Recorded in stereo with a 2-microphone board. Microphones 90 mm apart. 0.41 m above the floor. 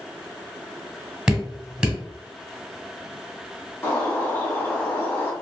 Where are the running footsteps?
I don't hear running footsteps.